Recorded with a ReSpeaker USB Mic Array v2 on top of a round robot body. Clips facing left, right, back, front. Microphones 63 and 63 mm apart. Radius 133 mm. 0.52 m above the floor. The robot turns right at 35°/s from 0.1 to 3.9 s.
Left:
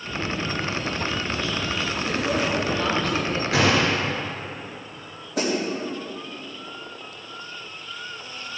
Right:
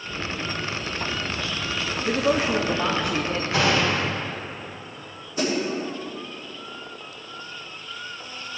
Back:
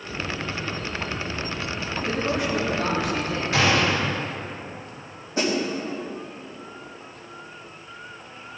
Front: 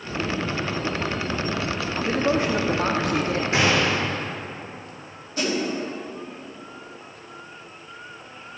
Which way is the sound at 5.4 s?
115° left.